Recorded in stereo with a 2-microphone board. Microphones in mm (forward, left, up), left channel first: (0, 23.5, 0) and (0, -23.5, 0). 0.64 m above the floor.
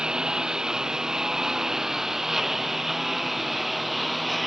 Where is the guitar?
No guitar in this recording.